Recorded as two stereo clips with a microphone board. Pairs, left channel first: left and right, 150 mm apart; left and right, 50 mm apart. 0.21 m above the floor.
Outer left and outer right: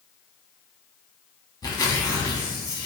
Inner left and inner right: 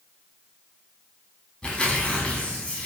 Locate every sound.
1.6 s tearing paper: 25° left (ahead or behind), 0.6 m